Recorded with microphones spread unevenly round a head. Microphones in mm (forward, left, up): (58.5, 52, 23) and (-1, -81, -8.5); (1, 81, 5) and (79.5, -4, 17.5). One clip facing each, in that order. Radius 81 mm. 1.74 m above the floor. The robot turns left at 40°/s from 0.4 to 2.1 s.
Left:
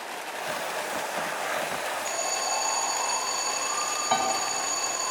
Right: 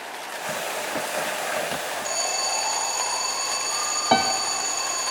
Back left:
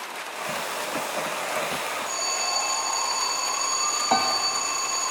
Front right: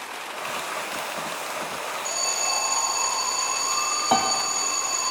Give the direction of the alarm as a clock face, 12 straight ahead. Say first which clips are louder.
Right 1 dB, even; 2 o'clock.